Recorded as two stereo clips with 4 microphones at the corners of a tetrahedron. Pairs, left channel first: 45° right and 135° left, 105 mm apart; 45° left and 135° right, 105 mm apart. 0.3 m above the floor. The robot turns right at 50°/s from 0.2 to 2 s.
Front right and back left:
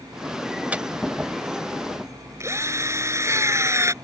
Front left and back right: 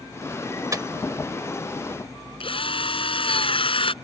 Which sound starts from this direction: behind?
A microwave, at 0.7 s.